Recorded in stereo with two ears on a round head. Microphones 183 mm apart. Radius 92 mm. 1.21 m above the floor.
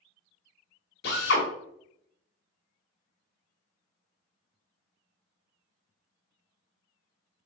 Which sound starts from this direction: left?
A drill, at 1.0 s.